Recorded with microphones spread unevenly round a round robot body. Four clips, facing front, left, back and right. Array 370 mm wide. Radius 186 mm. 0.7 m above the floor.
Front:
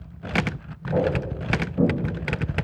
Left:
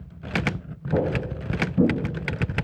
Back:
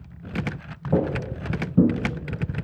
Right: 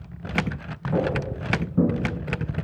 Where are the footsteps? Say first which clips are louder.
Even, front 1 dB; 165° left, 3 m; by 1.9 s 175° right, 3.5 m.